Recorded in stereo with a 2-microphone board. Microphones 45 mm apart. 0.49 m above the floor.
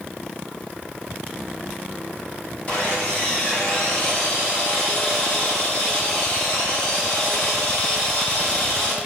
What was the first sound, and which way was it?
Sawing, 25° left (ahead or behind).